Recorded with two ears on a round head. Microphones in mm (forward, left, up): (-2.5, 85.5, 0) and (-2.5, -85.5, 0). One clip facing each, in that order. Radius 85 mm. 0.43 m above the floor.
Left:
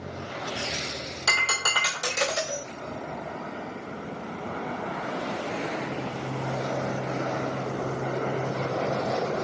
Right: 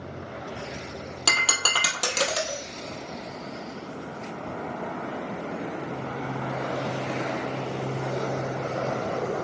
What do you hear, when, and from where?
1.3 s breaking glass: 70° right (ahead or behind), 1.1 m